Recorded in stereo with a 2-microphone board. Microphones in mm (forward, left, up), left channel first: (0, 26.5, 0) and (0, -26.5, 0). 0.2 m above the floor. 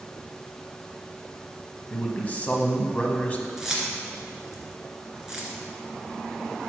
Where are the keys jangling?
10° right (ahead or behind), 2 m.